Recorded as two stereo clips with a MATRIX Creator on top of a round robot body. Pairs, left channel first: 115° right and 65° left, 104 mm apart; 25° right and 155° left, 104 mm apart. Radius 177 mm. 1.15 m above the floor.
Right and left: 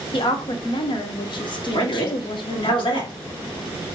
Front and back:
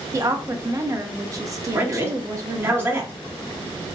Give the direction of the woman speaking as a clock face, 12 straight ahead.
5 o'clock.